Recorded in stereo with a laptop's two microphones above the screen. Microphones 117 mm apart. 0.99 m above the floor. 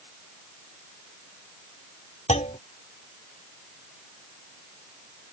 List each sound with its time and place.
2.3 s a clunk: 85° left